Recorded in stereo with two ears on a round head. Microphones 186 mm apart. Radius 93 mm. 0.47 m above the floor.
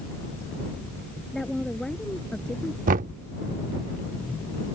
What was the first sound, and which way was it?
A woman speaking, centre (ahead or behind).